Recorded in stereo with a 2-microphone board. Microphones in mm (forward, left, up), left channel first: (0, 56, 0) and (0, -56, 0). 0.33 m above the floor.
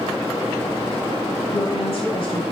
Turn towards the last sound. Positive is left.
turn(degrees=50)  # may be behind; listen again after turning